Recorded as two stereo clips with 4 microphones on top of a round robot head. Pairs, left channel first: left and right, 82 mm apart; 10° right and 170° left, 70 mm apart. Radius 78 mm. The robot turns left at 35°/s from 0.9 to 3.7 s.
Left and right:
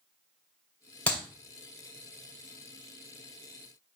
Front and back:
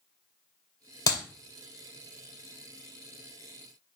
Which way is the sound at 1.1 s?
15° left.